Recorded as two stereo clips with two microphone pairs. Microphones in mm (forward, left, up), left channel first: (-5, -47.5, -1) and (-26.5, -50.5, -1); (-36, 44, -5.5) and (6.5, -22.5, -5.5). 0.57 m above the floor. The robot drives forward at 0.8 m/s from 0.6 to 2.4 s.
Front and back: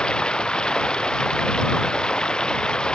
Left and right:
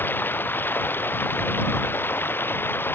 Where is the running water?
60° left.